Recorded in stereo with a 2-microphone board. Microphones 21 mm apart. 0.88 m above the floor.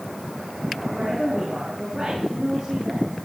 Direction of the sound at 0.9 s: 30° right (ahead or behind).